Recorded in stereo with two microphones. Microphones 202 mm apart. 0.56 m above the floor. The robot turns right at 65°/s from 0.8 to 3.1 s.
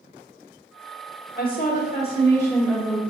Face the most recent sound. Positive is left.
turn(degrees=-150)